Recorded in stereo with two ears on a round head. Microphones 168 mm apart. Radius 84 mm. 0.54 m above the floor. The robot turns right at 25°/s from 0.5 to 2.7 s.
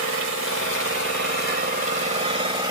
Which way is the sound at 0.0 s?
75° right.